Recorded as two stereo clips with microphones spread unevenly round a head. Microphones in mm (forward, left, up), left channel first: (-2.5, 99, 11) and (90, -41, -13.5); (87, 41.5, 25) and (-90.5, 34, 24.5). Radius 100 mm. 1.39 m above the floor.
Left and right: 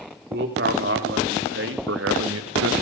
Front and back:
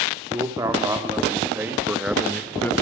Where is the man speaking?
100° right, 3 m; by 2.7 s 80° right, 0.7 m.